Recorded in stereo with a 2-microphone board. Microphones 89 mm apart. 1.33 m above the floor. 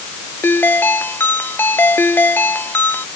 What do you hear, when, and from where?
0.4 s a ringtone: 25° left (ahead or behind)